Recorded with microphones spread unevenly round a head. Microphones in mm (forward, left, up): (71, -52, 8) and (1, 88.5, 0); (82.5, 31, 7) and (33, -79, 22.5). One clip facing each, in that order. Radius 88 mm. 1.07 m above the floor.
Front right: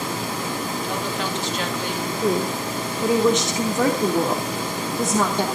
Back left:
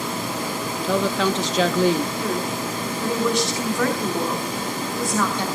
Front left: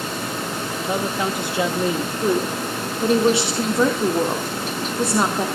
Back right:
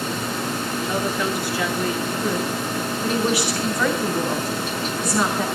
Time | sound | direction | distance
0.8 | a woman speaking | 135° left | 1.6 m
2.2 | a woman speaking | 5° left | 3 m